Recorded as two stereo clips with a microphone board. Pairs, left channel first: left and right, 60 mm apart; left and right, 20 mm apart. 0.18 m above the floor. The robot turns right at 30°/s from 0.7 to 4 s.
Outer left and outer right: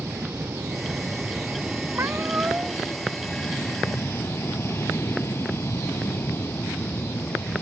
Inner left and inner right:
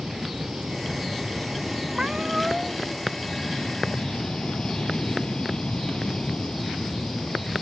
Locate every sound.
0.0 s an aircraft: 55° right; by 7.6 s 45° left
1.9 s a cat meowing: 50° right (ahead or behind); by 2.8 s 25° right (ahead or behind)